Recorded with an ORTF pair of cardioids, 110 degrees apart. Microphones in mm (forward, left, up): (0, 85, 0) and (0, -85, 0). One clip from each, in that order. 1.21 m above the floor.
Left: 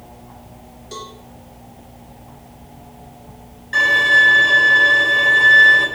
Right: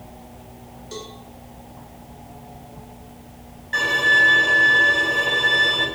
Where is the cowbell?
10° left, 3 m.